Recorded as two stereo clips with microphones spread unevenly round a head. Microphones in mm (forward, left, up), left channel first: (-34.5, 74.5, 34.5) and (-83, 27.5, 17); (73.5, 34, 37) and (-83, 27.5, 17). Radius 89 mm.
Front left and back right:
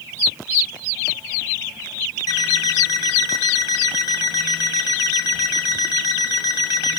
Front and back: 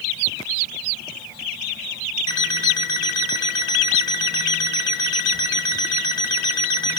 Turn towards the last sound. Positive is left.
turn(degrees=65)